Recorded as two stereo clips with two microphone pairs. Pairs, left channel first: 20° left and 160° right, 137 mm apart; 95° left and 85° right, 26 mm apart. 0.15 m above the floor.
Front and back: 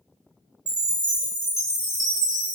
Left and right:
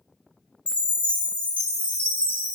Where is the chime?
115° left, 1.1 m.